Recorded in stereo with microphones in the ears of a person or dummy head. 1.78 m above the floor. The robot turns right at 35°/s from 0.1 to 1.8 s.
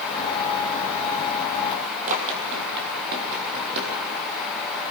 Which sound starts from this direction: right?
Running footsteps, at 2.1 s.